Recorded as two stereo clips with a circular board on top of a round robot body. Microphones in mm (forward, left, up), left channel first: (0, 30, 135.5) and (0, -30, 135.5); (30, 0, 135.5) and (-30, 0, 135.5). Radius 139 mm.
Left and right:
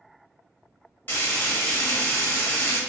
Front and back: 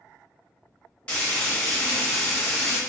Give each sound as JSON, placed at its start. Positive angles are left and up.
{"t": 1.1, "sound": "frying", "azimuth_deg": 60, "distance_m": 1.3}